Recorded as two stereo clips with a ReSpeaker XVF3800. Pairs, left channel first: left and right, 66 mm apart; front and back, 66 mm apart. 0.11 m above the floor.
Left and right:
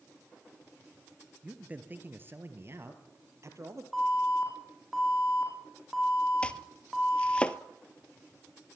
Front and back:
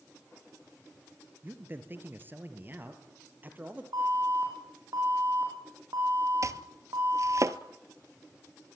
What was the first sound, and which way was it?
A man speaking, 145° right.